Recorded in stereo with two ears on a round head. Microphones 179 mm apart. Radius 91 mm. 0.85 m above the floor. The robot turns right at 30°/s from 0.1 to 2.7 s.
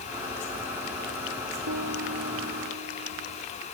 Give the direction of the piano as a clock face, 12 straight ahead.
3 o'clock.